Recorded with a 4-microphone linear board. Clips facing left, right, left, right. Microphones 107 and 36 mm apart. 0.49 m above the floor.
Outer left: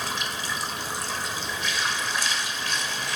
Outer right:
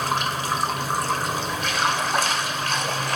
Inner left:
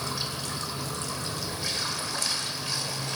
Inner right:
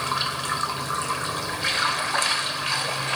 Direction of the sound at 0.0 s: 50° right (ahead or behind).